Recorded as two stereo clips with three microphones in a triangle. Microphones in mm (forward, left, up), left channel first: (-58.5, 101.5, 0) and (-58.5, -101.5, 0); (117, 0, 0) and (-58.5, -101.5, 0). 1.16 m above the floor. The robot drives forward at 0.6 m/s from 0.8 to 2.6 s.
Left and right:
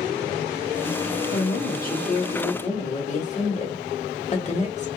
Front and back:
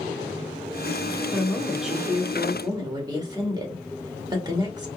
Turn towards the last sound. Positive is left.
turn(degrees=145)